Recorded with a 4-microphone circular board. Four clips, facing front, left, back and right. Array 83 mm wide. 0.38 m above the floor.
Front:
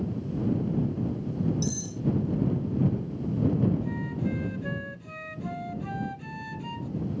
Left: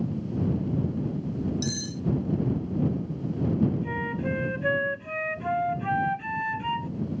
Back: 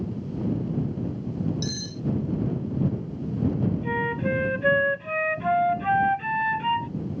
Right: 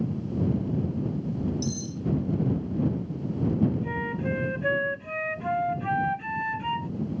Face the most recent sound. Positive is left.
turn(degrees=180)